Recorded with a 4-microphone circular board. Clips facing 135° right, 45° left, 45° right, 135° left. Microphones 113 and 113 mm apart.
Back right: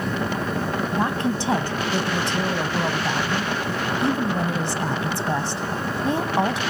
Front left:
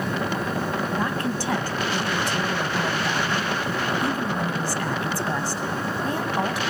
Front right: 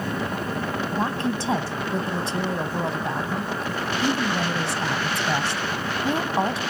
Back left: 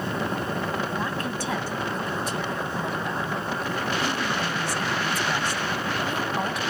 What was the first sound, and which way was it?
A woman speaking, 85° right.